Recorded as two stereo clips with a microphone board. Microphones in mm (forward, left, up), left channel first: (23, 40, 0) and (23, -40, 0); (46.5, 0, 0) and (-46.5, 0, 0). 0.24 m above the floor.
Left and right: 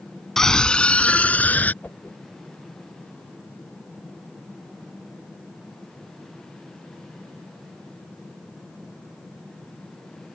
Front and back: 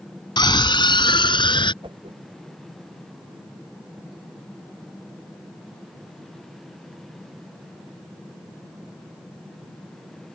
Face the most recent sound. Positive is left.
turn(degrees=160)